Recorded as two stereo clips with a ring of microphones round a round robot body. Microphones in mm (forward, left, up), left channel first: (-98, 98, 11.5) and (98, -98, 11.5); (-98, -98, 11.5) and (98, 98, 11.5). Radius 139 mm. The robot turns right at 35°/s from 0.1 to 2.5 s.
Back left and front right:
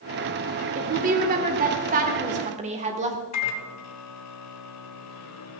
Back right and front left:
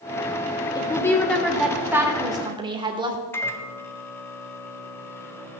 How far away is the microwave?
About 1.3 m.